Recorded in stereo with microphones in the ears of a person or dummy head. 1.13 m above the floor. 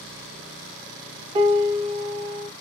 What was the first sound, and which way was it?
A piano, 30° right (ahead or behind).